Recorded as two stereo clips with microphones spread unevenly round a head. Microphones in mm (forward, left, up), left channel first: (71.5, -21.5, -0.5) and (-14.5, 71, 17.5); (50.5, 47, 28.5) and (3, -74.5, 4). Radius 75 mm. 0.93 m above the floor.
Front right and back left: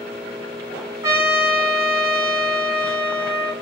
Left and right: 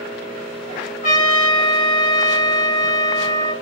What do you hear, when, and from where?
1.0 s a trumpet: 65° left, 1.0 m